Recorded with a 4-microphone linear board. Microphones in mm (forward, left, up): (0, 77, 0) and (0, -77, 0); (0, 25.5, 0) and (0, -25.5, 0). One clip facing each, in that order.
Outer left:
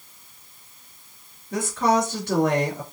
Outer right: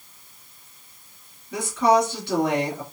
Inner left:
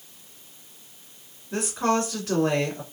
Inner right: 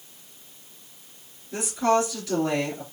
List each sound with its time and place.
1.5 s a woman speaking: 45° left (ahead or behind), 2 m